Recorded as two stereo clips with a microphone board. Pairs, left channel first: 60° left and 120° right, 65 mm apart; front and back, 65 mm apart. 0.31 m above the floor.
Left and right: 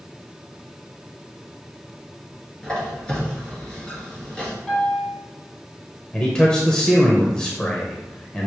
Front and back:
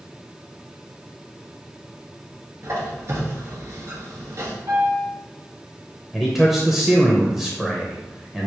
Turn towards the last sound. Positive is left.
turn(degrees=110)